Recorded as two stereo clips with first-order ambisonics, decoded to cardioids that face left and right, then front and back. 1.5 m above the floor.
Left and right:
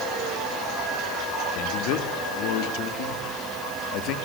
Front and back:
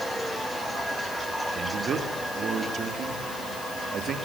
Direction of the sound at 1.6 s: 120° left.